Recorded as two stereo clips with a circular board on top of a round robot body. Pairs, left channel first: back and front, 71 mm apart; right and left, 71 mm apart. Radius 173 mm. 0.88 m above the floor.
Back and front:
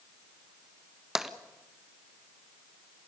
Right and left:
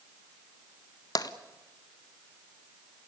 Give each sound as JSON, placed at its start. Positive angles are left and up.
{"t": 1.1, "sound": "tapping", "azimuth_deg": -85, "distance_m": 1.7}